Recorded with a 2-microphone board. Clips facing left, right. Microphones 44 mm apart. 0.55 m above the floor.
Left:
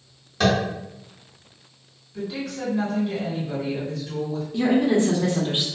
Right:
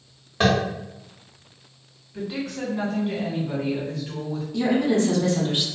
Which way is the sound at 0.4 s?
25° right (ahead or behind).